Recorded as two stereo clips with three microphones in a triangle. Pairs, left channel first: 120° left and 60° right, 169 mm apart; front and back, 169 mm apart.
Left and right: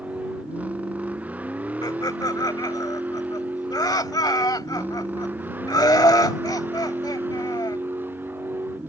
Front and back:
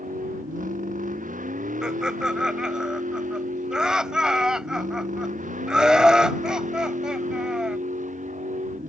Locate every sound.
0.0 s a vehicle: 140° right
1.8 s laughter: 100° left